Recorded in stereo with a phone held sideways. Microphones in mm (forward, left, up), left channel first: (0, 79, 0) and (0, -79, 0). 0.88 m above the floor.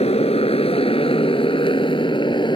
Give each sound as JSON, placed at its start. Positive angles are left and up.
{"t": 0.0, "sound": "a motorcycle", "side_deg": 40}